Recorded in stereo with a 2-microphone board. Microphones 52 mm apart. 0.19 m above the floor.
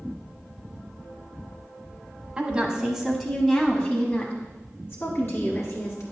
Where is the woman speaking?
20° right (ahead or behind), 1.2 m; by 6.0 s 55° left (ahead or behind), 1.9 m.